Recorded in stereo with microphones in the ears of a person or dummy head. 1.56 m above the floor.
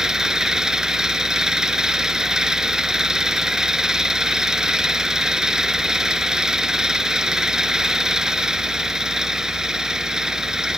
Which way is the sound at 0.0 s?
5° right (ahead or behind).